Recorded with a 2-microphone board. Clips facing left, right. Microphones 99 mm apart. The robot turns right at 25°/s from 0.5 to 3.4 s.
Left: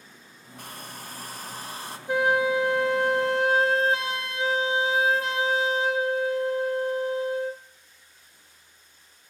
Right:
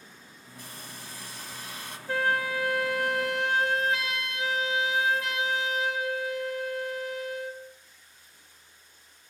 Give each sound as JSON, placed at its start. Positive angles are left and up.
{"t": 0.6, "sound": "a hair dryer", "azimuth_deg": 105, "distance_m": 2.0}
{"t": 2.1, "sound": "a flute", "azimuth_deg": 30, "distance_m": 0.8}